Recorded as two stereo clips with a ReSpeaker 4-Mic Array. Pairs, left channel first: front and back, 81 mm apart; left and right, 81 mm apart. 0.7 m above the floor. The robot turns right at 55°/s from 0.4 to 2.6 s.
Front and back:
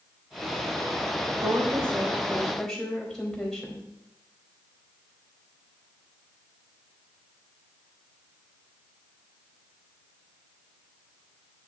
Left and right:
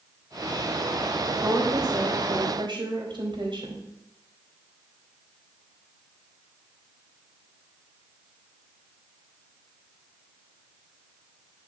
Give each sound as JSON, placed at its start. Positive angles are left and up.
{"t": 1.4, "sound": "a woman speaking", "azimuth_deg": -145, "distance_m": 3.5}